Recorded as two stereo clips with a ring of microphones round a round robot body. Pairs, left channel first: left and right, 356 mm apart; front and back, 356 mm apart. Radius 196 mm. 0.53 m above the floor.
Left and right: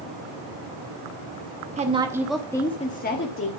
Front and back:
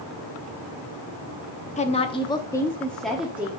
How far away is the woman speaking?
About 1.0 m.